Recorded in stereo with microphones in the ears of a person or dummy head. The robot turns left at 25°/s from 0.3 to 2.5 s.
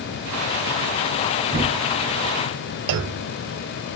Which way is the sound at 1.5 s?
30° right (ahead or behind).